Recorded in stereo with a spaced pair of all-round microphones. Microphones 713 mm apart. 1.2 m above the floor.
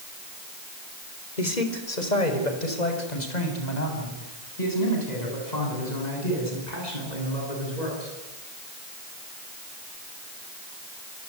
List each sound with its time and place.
1.4 s a man speaking: 75° left (ahead or behind), 4 m; by 8.1 s 70° left (ahead or behind), 14 m